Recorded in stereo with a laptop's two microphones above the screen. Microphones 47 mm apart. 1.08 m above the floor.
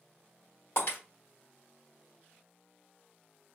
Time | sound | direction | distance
0.8 | breaking glass | 60° left (ahead or behind) | 1.8 m